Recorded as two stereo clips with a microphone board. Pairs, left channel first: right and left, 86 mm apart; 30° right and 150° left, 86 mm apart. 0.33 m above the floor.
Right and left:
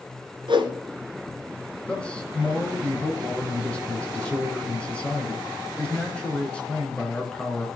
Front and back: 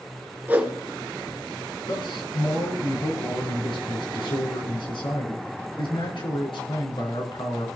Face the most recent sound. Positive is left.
turn(degrees=-15)